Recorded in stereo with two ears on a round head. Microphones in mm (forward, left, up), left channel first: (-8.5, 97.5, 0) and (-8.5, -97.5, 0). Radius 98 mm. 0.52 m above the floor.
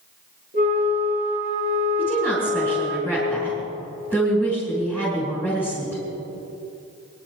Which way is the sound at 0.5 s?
40° left (ahead or behind).